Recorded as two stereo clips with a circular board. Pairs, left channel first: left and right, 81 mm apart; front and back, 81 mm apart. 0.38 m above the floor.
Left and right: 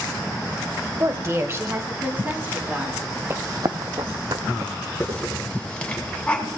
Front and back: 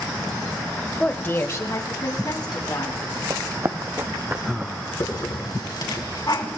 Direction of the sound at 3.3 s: 140° right.